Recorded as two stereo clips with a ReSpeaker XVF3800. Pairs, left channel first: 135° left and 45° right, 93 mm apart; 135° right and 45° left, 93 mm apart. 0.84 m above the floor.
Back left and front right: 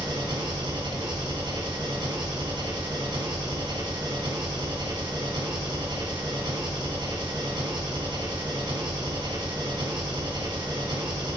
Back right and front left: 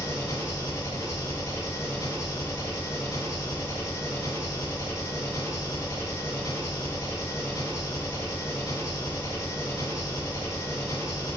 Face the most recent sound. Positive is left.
turn(degrees=-75)